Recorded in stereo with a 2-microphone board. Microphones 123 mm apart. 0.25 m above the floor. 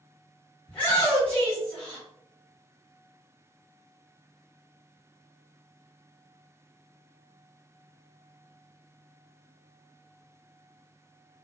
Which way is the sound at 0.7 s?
10° left (ahead or behind).